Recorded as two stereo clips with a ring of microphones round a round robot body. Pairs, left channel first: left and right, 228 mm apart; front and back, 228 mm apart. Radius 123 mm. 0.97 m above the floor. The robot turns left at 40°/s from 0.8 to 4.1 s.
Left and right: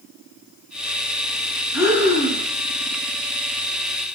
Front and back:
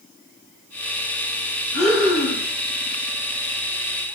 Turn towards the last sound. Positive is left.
turn(degrees=-105)